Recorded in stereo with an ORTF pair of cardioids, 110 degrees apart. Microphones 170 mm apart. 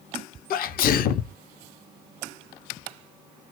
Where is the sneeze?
60° left, 0.7 m.